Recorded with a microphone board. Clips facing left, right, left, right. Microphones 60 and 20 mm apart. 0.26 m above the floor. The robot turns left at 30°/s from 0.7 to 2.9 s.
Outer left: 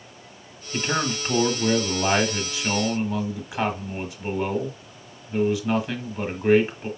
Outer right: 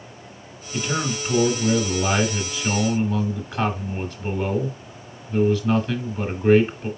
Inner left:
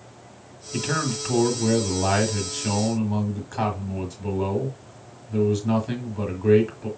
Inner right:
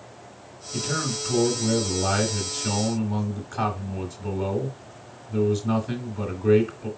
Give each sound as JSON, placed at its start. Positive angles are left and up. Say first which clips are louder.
{"t": 0.7, "sound": "a man speaking", "louder": "even, inner left 2 dB", "azimuth_deg": 80, "distance_m": 1.4}